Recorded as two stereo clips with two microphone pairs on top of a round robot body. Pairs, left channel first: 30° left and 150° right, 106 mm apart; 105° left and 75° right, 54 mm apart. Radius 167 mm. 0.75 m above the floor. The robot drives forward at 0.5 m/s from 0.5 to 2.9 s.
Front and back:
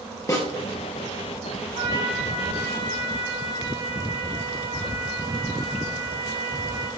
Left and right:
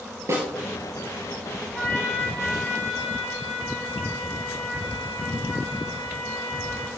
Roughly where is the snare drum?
Ahead right.